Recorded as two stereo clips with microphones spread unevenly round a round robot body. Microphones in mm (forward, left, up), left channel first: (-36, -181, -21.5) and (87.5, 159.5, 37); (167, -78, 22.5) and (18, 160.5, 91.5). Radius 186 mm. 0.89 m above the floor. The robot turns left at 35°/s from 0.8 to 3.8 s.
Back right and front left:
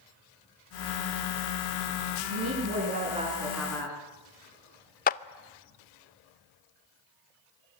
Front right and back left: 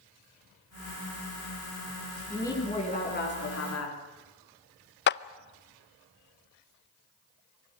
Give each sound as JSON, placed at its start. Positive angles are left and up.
{"t": 2.3, "sound": "a woman speaking", "azimuth_deg": 25, "distance_m": 9.0}
{"t": 5.1, "sound": "a clap", "azimuth_deg": -60, "distance_m": 0.5}